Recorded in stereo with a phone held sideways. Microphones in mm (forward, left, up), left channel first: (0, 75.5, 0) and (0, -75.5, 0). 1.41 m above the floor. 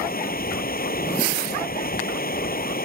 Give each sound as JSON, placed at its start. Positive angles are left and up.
{"t": 0.0, "sound": "running water", "side_deg": 70}